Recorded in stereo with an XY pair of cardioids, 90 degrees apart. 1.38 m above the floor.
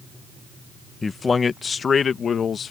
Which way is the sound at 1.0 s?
30° left.